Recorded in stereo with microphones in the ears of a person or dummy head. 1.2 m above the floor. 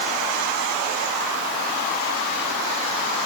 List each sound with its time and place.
Only background noise.